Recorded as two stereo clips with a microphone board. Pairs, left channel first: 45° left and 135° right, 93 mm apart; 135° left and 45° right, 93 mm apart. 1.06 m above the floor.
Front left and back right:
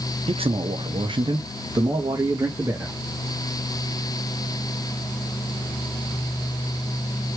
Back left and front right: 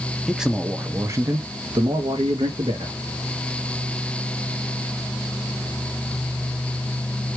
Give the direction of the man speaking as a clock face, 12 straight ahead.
4 o'clock.